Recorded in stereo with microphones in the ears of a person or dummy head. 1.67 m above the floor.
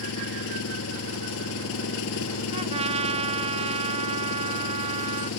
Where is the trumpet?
30° right (ahead or behind).